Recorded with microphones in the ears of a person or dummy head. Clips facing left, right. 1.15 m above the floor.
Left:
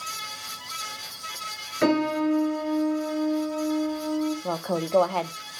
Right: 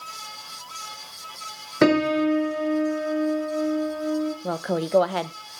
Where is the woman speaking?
15° right (ahead or behind), 0.7 m.